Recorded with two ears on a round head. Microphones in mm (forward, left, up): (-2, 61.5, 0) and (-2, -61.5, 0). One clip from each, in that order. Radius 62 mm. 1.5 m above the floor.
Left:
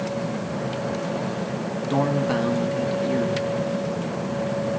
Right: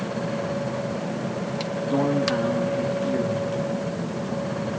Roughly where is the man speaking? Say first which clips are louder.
Even; left.